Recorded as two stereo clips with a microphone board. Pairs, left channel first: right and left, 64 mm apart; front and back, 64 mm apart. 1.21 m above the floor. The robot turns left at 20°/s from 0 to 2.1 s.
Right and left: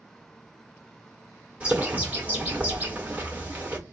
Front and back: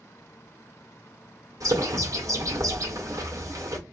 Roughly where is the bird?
Behind.